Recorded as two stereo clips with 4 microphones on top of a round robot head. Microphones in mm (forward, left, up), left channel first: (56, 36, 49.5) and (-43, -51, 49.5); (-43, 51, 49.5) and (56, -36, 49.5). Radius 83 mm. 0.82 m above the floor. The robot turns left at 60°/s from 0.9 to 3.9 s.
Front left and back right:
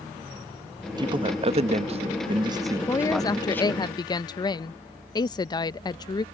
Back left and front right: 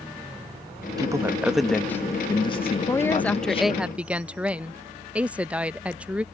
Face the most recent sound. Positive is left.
turn(degrees=30)